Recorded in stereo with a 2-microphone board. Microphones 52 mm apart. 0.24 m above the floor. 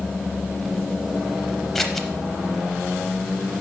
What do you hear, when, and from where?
1.8 s scissors: 5° left (ahead or behind), 0.6 m